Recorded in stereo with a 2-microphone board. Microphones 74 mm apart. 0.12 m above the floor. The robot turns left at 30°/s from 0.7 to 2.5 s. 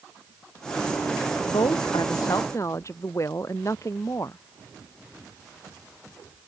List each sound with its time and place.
1.5 s a woman speaking: 75° left; by 4.4 s 45° left